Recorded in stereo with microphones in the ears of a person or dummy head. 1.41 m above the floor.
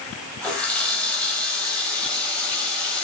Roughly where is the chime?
No chime in this recording.